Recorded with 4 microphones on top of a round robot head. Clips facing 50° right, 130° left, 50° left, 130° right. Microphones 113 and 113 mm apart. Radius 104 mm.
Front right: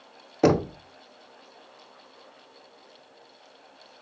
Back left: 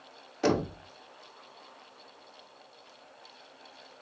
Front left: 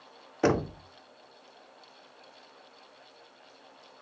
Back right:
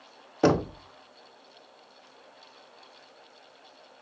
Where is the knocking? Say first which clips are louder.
Front right 6 dB, back right 3 dB; 65° right, 0.9 m.